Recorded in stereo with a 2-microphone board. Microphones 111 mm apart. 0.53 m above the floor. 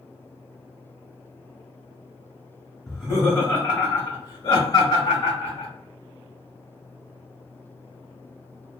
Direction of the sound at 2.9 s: 5° right (ahead or behind).